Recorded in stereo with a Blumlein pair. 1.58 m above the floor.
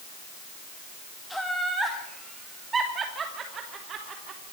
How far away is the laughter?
About 2 m.